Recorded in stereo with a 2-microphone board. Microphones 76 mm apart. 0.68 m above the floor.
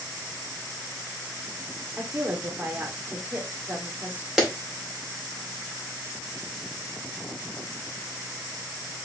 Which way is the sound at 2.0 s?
25° right (ahead or behind).